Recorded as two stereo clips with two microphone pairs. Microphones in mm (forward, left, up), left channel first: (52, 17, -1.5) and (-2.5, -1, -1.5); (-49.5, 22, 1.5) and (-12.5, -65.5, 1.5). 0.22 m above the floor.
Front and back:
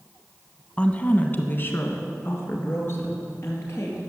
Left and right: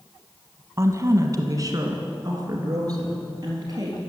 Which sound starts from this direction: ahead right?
A woman speaking, at 0.8 s.